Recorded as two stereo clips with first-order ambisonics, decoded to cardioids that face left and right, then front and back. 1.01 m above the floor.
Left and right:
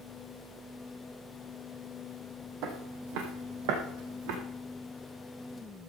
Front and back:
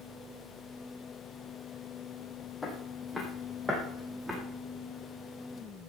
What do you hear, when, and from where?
2.6 s footsteps: 75° right, 2.5 m; by 4.4 s 95° right, 3.5 m